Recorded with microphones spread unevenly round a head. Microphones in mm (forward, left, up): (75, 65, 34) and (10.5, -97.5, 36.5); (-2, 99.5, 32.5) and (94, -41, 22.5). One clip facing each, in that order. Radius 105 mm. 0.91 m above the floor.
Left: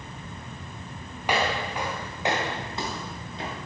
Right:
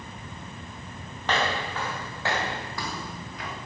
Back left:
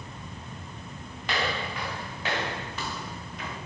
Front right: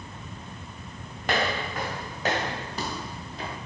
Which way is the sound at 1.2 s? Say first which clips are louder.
Left 1 dB, front right 3 dB; 10° right.